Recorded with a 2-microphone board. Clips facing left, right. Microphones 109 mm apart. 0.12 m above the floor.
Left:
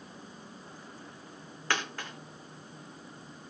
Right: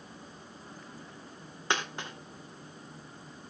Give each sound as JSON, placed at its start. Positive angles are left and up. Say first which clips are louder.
{"t": 1.7, "sound": "a dropped coin", "louder": "right 1 dB", "side_deg": -20, "distance_m": 4.0}